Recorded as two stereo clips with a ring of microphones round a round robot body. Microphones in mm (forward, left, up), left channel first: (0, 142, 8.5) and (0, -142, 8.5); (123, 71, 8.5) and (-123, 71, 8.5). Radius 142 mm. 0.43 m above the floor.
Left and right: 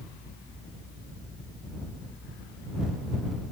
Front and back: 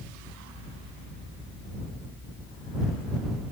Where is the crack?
No crack in this recording.